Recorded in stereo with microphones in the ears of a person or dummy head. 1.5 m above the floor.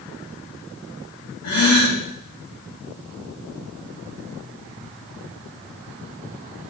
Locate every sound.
1.4 s a gasp: 55° left (ahead or behind), 2 m